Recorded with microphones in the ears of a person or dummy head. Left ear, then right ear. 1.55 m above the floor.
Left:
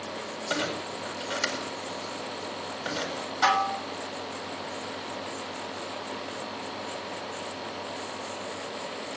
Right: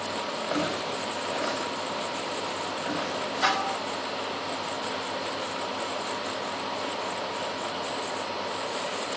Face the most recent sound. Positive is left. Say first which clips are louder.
# left 3 dB
turn(degrees=25)  # may be behind; listen again after turning